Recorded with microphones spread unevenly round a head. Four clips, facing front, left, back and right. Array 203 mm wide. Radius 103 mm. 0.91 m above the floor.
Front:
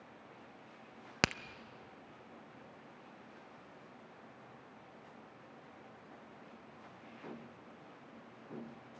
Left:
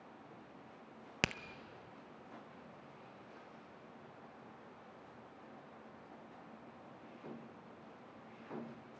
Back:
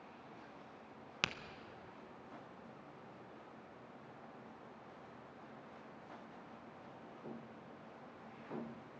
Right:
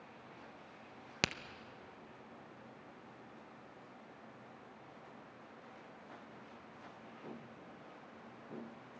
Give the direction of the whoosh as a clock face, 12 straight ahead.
No whoosh in this recording.